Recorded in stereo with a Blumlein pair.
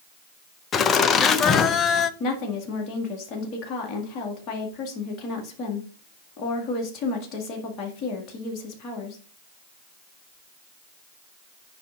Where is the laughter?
25° left, 0.6 m.